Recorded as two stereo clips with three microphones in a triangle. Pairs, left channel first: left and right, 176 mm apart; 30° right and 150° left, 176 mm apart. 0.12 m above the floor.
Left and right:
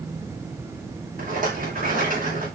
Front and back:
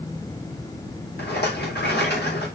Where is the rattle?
50° right, 6 m.